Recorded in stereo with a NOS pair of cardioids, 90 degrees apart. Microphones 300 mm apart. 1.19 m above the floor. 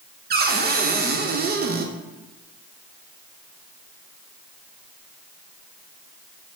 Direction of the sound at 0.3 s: 30° right.